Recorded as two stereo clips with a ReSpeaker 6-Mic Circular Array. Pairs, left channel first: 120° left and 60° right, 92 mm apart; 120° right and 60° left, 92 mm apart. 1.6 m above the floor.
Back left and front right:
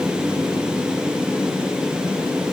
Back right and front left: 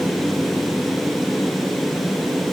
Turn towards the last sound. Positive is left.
No sound to turn to.